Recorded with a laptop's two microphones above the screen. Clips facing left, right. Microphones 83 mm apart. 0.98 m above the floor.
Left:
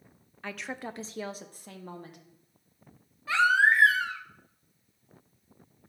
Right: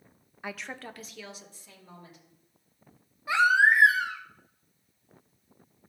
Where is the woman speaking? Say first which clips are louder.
Left 2 dB; 15° right (ahead or behind), 0.5 m; by 2.2 s 60° left (ahead or behind), 1.4 m.